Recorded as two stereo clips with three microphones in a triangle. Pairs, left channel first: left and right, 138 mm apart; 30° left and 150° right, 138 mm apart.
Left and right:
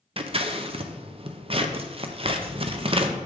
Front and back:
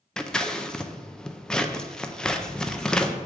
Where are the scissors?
55° right, 0.6 m.